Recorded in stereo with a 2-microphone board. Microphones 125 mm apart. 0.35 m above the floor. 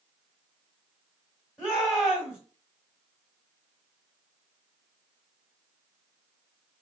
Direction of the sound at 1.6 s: Centre (ahead or behind).